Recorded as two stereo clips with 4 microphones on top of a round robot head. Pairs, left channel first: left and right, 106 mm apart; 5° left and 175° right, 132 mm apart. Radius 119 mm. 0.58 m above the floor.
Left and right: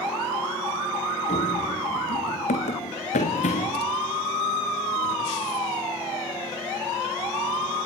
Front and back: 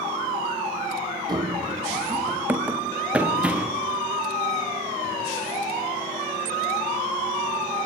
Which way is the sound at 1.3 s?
125° left.